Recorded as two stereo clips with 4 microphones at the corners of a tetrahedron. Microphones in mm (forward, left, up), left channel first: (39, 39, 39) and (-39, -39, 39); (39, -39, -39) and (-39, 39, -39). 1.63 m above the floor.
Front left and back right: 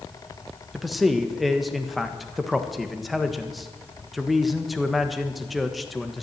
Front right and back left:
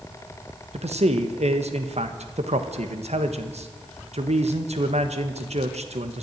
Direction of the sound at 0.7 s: 135° left.